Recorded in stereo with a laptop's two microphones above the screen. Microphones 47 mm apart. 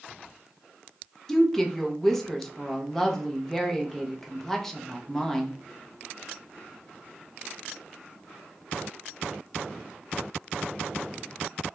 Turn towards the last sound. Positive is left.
turn(degrees=10)  # may be behind; listen again after turning